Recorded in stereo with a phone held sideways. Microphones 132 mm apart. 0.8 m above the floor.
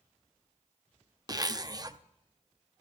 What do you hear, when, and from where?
1.3 s a zipper: 30° right (ahead or behind), 0.5 m